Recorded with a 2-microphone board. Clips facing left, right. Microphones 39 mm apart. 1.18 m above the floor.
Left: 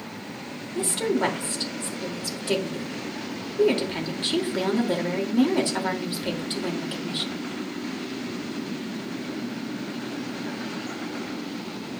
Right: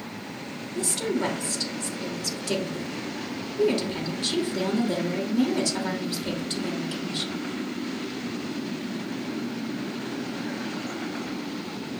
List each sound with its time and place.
0.8 s a woman speaking: 25° left (ahead or behind), 2.5 m